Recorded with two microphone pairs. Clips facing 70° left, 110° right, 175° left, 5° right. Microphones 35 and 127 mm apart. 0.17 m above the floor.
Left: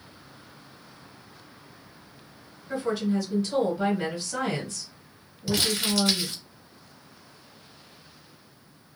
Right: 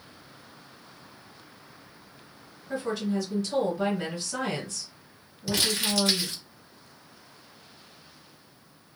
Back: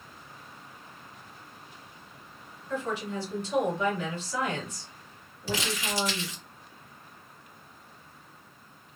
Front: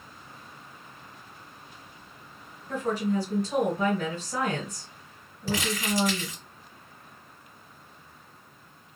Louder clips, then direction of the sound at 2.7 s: Left 2 dB, front 5 dB; 10° right.